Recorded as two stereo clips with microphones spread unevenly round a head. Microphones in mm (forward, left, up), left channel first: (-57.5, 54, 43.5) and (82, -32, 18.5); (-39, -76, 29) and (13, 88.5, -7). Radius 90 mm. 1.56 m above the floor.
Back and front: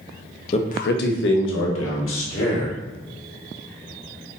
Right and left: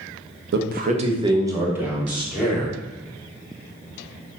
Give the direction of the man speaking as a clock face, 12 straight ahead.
9 o'clock.